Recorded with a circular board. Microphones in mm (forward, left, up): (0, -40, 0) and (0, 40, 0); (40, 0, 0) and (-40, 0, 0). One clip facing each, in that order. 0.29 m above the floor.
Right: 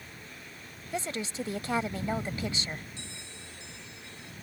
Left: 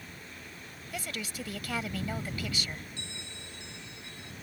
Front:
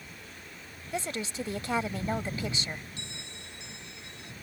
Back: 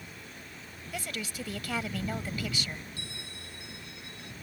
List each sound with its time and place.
0.9 s a woman speaking: 45° right
3.0 s a bell: 60° left